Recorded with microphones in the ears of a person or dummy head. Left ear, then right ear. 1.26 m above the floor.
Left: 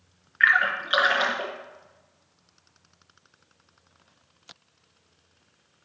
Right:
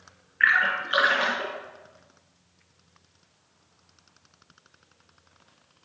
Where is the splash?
20° left (ahead or behind), 1.4 m.